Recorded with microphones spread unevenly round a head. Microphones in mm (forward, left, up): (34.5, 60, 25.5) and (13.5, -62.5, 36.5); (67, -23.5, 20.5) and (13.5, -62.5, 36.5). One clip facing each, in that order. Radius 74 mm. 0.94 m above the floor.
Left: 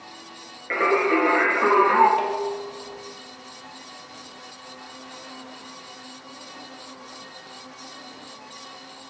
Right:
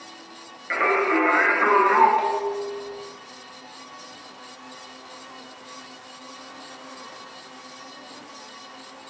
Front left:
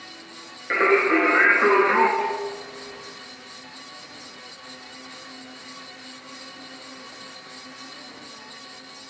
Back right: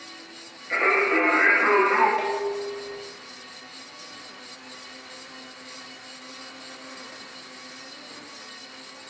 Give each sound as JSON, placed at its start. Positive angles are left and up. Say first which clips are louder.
{"t": 0.7, "sound": "singing", "louder": "left 1 dB, front left 3 dB", "azimuth_deg": 15, "distance_m": 1.9}
{"t": 2.2, "sound": "dishes clattering", "louder": "right 1 dB, even", "azimuth_deg": 155, "distance_m": 0.8}